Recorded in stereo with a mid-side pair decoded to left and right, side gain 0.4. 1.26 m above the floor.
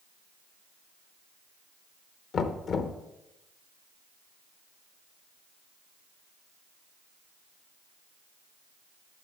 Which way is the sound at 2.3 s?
60° left.